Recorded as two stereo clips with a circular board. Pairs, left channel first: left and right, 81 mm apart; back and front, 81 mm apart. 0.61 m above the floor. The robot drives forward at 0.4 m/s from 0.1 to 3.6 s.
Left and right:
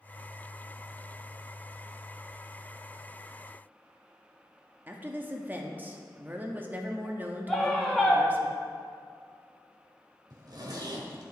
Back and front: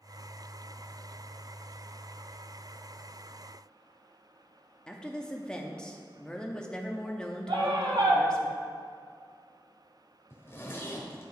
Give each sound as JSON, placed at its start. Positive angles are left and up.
{"t": 4.9, "sound": "a woman speaking", "azimuth_deg": -115, "distance_m": 0.7}
{"t": 7.5, "sound": "a scream", "azimuth_deg": 5, "distance_m": 1.5}
{"t": 10.3, "sound": "a zipper", "azimuth_deg": -120, "distance_m": 1.2}